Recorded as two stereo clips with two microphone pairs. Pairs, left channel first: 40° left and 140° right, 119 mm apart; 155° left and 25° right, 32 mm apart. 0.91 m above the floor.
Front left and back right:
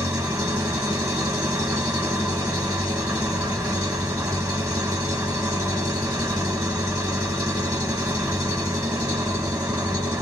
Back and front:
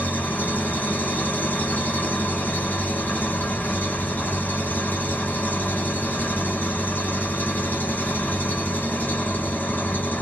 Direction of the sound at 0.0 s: 155° left.